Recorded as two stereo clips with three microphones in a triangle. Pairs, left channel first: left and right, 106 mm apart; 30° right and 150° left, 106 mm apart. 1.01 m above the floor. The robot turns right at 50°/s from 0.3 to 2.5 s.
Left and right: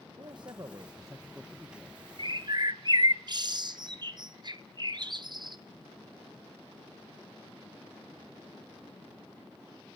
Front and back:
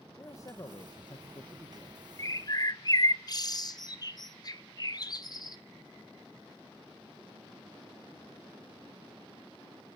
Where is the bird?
80° right, 0.9 m; by 5.6 s 65° right, 0.9 m.